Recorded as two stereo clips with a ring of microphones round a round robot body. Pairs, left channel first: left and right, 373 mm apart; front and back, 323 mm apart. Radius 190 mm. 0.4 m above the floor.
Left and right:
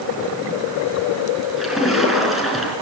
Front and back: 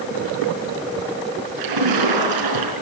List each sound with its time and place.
1.6 s a splash: straight behind, 4.5 m